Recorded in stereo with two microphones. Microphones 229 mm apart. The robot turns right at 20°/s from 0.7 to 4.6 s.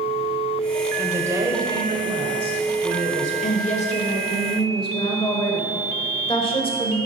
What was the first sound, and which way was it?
A woman speaking, 165° right.